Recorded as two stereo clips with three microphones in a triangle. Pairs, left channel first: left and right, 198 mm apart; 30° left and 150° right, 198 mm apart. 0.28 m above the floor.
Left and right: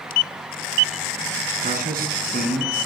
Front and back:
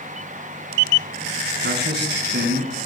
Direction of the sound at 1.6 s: 130° right.